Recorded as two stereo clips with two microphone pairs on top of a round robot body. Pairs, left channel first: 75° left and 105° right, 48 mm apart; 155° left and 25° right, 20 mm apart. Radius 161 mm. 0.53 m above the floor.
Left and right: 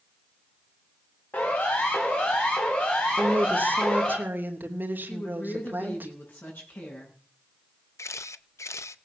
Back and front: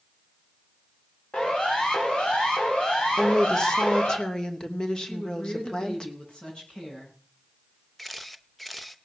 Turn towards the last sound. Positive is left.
turn(degrees=70)